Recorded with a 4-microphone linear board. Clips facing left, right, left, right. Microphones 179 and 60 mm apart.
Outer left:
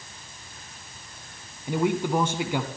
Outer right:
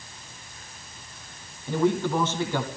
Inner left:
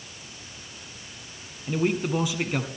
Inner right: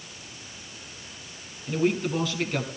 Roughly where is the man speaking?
Centre.